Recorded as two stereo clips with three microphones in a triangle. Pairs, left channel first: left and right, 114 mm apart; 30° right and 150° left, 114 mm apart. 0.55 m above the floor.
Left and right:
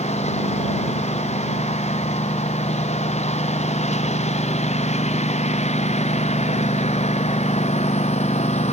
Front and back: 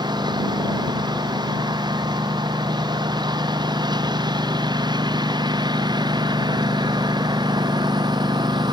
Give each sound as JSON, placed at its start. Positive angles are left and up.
{"t": 0.0, "sound": "a lawn mower", "azimuth_deg": 100}